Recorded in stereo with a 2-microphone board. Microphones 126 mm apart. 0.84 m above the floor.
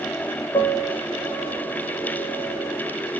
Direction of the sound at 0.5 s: 40° left (ahead or behind).